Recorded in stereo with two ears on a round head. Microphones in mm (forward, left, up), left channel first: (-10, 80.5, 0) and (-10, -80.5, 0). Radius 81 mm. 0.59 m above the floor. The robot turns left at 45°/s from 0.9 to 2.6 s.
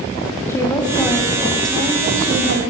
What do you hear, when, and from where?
0.5 s a woman speaking: 15° left, 4 m; by 2.7 s 60° right, 4 m